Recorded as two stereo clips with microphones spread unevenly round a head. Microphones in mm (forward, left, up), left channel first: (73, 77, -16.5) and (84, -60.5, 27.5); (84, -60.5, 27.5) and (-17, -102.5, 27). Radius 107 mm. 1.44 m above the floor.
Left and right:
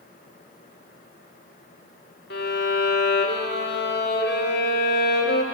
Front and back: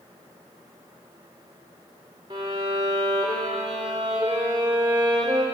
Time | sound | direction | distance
2.3 | a violin | 130° left | 2.5 m